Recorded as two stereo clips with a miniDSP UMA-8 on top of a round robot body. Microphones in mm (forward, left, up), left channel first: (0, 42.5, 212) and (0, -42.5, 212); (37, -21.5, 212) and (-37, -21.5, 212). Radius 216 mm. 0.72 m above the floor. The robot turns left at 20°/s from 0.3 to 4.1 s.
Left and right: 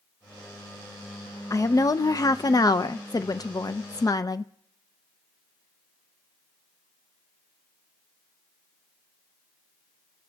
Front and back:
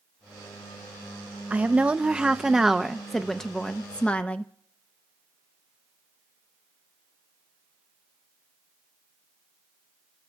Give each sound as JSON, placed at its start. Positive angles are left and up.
{"t": 1.5, "sound": "a woman speaking", "azimuth_deg": 120, "distance_m": 0.6}